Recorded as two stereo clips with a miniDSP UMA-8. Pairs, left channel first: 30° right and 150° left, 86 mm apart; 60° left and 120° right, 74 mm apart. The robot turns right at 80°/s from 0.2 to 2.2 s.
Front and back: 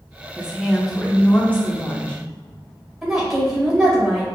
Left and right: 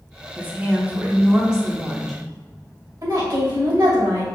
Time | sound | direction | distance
0.4 | a woman speaking | 155° right | 0.7 m
3.0 | a woman speaking | 125° right | 1.9 m